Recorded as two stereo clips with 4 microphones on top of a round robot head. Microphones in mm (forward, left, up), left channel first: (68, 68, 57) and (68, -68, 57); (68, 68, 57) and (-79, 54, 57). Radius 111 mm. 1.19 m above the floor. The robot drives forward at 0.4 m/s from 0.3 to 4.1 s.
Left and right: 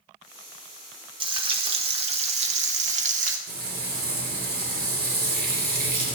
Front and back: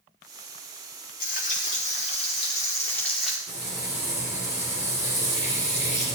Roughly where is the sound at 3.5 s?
Right.